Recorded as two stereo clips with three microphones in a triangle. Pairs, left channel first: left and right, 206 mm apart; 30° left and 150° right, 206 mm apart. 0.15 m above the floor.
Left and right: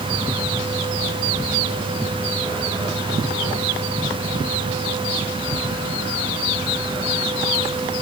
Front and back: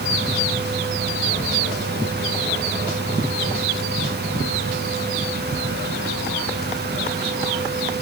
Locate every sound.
Only background noise.